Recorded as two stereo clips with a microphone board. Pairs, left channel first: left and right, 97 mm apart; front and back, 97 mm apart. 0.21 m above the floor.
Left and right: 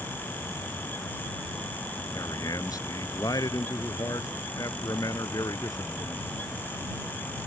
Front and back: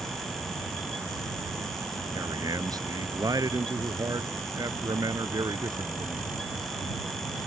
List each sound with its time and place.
2.1 s a man speaking: 135° left